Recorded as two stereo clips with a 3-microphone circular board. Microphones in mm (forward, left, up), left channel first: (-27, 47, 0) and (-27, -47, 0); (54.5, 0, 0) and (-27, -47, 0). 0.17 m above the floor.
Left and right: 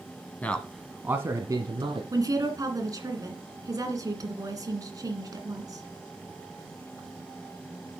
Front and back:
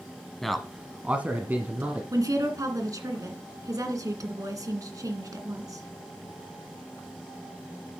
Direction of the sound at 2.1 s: 120° right.